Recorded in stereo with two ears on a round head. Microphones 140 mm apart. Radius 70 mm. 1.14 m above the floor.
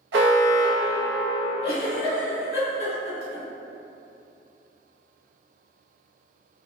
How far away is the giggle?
About 1.4 m.